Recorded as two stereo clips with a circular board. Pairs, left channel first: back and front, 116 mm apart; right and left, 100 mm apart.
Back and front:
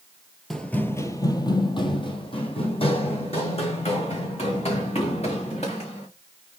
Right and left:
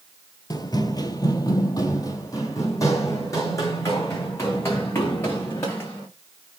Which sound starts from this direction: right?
Running footsteps, at 0.5 s.